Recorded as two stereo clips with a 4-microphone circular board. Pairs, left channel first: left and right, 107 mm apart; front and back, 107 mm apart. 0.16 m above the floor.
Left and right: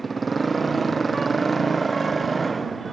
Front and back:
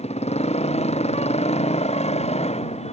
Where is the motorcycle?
Straight ahead.